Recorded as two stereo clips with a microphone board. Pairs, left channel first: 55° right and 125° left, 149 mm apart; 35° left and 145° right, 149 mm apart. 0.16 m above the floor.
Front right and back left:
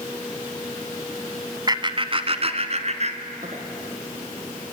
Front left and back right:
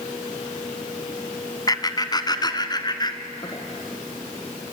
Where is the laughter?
80° left, 1.4 m; by 3.6 s 95° left, 3 m.